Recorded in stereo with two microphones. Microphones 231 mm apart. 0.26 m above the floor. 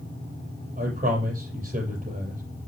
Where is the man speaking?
30° right (ahead or behind), 7 m.